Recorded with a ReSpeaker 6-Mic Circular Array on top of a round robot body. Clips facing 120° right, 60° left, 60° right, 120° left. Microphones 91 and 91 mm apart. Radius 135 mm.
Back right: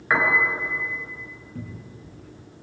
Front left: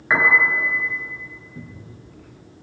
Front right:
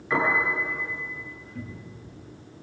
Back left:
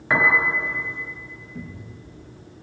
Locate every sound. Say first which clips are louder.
0.1 s a piano: front left 3 dB, back left 4 dB; 150° left, 4.5 m
1.6 s a cupboard door: back right 3 dB, back left 2 dB; 155° right, 7 m